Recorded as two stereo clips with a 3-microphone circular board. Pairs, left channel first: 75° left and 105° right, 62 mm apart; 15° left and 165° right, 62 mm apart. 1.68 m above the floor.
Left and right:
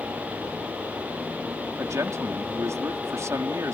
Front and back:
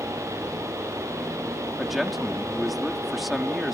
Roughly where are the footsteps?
I don't hear footsteps.